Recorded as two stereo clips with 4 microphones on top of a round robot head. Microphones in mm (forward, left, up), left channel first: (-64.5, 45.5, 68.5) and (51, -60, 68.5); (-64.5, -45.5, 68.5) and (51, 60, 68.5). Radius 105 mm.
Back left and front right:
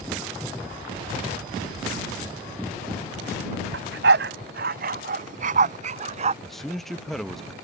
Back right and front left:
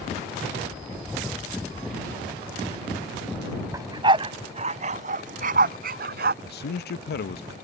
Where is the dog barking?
30° right; by 6.3 s 10° left.